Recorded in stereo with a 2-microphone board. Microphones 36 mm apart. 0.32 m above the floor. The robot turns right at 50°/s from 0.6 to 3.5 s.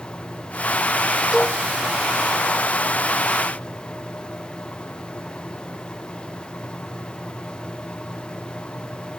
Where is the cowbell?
15° right (ahead or behind); by 1.6 s 10° right (ahead or behind).